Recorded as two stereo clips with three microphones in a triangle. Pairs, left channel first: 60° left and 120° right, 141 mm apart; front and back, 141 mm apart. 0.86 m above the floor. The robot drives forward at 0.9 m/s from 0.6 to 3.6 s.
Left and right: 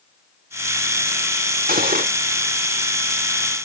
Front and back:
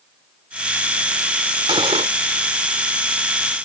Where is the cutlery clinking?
125° right; by 2.1 s 135° right.